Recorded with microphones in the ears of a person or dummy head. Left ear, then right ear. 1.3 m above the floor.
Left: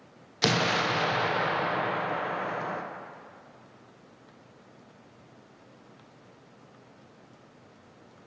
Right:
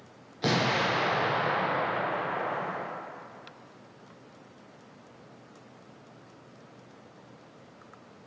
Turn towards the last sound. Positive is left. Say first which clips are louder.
# left 1 dB
turn(degrees=60)  # may be behind; listen again after turning